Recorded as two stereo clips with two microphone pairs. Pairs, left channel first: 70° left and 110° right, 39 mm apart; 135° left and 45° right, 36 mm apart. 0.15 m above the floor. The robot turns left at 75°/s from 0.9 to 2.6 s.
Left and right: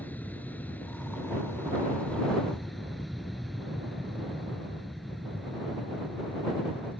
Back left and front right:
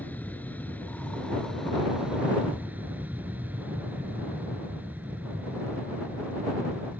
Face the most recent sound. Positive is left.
turn(degrees=-20)